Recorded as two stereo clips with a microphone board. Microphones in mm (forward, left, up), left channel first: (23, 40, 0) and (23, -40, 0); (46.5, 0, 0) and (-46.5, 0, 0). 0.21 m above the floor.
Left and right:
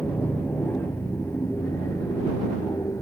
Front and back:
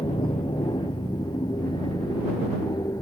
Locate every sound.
0.0 s an aircraft: 20° left; by 3.0 s 45° left